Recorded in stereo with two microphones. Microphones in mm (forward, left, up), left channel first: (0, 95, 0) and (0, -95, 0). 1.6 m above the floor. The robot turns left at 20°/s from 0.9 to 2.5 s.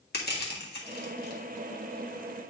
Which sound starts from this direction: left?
Crushing, at 0.1 s.